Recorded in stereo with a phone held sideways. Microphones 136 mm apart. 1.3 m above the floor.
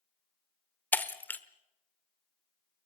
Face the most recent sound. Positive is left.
turn(degrees=15)  # may be behind; listen again after turning